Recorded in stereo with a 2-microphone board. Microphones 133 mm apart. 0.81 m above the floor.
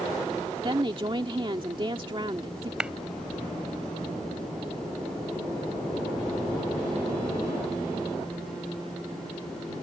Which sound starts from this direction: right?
A woman speaking, at 0.6 s.